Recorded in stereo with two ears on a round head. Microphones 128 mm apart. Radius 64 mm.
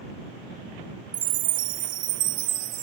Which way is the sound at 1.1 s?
60° right (ahead or behind).